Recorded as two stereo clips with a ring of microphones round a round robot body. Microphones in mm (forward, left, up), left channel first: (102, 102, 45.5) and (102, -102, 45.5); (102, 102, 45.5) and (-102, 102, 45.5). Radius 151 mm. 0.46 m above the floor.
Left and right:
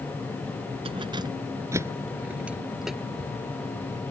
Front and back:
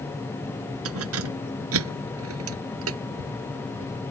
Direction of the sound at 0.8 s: 160° right.